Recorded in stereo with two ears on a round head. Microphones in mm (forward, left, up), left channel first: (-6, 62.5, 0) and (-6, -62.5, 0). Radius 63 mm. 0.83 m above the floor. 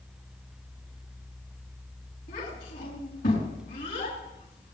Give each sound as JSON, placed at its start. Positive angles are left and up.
{"t": 2.3, "sound": "a child speaking", "side_deg": 65, "distance_m": 6.5}